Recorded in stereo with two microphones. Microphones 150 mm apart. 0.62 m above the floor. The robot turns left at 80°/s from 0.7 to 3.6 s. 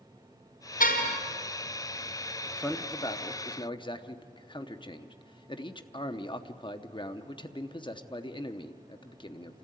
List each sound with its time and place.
0.8 s a car horn: 115° left, 2.5 m; by 1.2 s 80° left, 2.5 m
2.5 s a man speaking: 5° left (ahead or behind), 0.8 m; by 9.7 s 35° left (ahead or behind), 0.8 m